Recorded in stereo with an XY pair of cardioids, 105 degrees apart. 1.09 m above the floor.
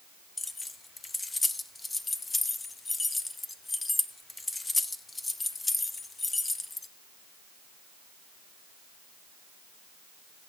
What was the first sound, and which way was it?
Keys jangling, 20° left.